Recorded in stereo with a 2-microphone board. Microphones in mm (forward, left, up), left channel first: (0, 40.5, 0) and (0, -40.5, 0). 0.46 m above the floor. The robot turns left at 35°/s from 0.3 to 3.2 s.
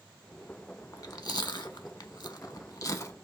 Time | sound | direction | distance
0.9 | chewing | 50° left (ahead or behind) | 0.5 m